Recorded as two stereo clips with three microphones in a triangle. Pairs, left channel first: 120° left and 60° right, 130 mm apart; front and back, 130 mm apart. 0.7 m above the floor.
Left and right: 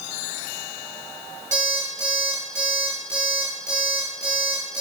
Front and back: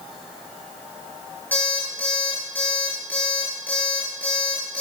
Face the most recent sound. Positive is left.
turn(degrees=-75)